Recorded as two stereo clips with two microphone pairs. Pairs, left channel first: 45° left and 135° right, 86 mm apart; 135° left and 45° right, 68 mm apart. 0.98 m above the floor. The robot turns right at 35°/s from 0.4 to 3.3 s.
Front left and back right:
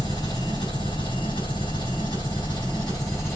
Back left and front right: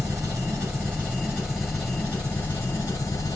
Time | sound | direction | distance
0.0 | an engine running | straight ahead | 5 m